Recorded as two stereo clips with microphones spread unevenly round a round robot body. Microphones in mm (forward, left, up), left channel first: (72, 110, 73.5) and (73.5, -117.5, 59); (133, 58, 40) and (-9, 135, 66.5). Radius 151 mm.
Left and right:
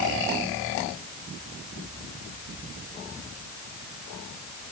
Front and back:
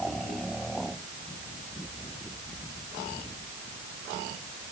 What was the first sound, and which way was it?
Only background noise.